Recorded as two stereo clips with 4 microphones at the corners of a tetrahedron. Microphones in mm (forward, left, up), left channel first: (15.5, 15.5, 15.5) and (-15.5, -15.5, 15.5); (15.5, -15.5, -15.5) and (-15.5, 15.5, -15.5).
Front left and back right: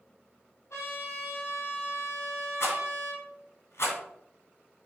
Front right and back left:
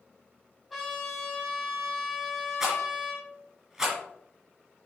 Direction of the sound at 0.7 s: 45° left.